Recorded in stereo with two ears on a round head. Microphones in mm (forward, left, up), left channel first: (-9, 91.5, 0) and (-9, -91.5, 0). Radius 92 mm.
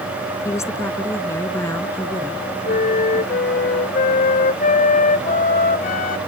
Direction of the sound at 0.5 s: 15° left (ahead or behind).